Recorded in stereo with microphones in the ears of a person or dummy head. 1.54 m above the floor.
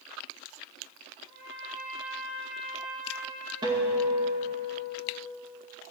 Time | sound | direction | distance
1.3 | a trumpet | 80° right | 4.5 m
3.6 | a guitar | 25° right (ahead or behind) | 2 m